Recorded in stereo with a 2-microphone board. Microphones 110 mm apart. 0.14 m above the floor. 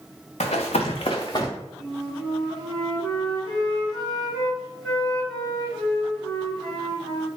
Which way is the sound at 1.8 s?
5° left (ahead or behind).